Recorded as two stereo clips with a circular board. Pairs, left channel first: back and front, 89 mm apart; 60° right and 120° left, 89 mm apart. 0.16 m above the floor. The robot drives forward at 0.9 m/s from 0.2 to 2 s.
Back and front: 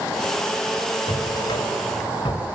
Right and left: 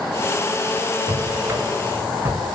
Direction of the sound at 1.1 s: Straight behind.